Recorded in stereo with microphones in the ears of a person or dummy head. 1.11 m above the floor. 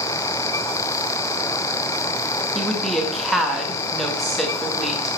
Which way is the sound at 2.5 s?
10° right (ahead or behind).